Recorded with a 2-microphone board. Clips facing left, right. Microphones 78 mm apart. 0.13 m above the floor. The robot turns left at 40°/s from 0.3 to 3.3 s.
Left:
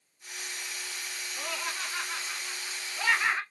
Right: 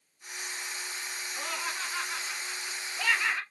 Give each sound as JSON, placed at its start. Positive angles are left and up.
{"t": 1.4, "sound": "laughter", "side_deg": -15, "distance_m": 1.2}